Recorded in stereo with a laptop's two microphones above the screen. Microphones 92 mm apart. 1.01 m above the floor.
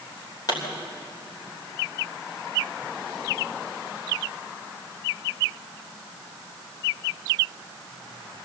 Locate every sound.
0.5 s a pop: 45° left (ahead or behind), 3.5 m